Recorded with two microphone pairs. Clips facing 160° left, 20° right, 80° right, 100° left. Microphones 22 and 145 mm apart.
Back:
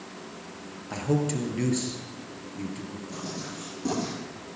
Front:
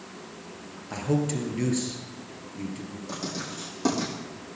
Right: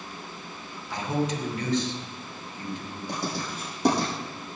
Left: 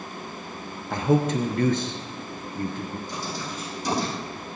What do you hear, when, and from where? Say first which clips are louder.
0.9 s a man speaking: even, left 6 dB; 70° left, 3 m
3.1 s writing: front 4 dB, right 1 dB; 60° right, 7.5 m